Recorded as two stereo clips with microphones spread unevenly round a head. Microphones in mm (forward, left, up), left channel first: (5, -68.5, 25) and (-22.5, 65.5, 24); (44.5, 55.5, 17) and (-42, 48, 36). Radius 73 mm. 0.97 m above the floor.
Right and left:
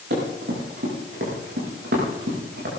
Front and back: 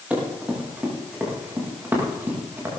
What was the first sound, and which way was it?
Running footsteps, 110° left.